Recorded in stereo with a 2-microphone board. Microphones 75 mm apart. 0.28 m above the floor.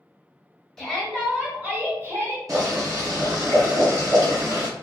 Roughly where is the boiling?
Right.